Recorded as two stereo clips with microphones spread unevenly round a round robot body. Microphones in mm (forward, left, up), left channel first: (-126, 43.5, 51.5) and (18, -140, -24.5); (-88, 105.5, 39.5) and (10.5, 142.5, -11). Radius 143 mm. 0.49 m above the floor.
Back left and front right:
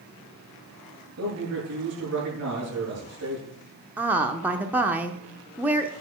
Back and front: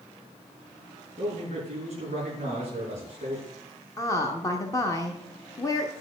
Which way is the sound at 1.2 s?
10° right.